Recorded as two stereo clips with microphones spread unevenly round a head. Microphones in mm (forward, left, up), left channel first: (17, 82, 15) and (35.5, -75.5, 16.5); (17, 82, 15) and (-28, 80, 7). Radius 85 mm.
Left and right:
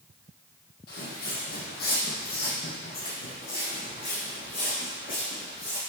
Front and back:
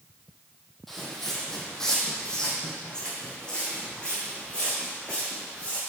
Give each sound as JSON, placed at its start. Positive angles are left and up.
{"t": 0.9, "sound": "footsteps", "azimuth_deg": 80, "distance_m": 2.0}